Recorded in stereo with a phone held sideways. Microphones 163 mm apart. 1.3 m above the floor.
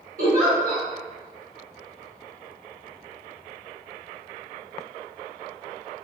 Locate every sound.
0.2 s a giggle: 60° right (ahead or behind), 1.0 m